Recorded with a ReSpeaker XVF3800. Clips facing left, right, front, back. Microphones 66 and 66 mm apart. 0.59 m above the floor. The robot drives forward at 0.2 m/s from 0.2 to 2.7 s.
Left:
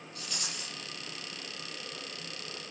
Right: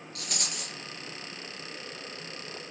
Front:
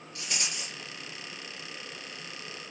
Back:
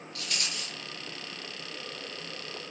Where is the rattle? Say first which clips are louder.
Right 3 dB, even; 70° right, 4 m; by 0.8 s 75° right, 4 m.